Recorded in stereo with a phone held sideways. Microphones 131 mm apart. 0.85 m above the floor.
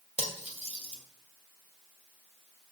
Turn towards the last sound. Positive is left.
turn(degrees=-60)  # may be behind; listen again after turning